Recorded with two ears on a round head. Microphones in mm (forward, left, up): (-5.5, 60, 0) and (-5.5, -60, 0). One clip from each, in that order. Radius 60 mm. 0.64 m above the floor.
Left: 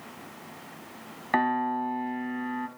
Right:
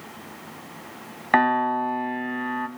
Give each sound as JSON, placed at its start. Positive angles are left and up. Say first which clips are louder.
{"t": 1.3, "sound": "a piano", "louder": "right 6 dB", "side_deg": -30, "distance_m": 1.6}